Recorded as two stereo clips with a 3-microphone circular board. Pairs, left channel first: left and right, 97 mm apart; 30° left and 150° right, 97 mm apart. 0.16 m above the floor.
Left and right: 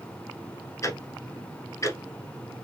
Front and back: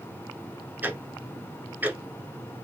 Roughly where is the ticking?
Behind left.